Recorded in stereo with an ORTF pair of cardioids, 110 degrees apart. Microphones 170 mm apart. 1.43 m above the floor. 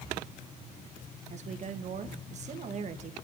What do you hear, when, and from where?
1.3 s a woman speaking: 45° right, 1.6 m